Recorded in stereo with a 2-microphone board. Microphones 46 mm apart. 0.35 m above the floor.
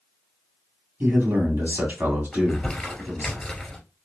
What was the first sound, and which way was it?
A man speaking, 40° right (ahead or behind).